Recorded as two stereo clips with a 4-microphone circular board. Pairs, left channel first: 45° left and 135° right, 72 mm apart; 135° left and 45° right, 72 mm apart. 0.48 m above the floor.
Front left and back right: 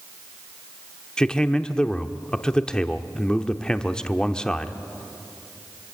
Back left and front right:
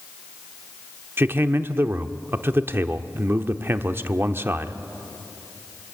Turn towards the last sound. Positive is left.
turn(degrees=-25)